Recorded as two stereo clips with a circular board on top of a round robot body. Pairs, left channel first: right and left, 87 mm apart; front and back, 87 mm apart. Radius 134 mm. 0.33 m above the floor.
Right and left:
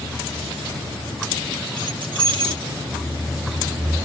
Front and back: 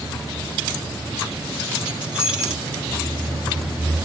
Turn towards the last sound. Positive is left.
turn(degrees=100)